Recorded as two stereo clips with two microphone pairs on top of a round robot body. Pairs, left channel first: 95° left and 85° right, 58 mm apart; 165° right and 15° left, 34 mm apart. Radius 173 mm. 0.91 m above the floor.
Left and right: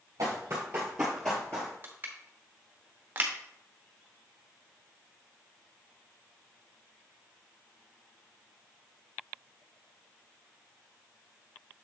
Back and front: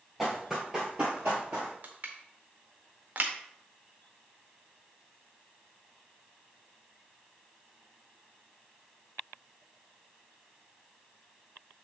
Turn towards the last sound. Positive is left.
turn(degrees=-30)